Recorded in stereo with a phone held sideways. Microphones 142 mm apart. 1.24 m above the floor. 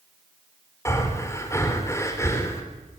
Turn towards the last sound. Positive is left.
turn(degrees=20)  # may be behind; listen again after turning